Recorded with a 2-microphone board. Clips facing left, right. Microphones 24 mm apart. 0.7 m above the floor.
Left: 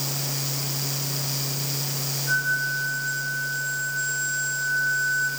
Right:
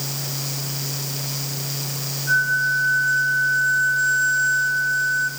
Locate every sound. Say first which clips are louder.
2.3 s a flute: right 6 dB; 20° right (ahead or behind), 1.7 m